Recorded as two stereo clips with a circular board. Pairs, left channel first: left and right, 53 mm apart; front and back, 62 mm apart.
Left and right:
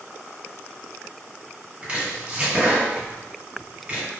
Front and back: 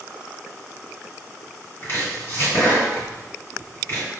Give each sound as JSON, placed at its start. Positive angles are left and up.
{"t": 1.8, "sound": "chopping", "azimuth_deg": -30, "distance_m": 1.8}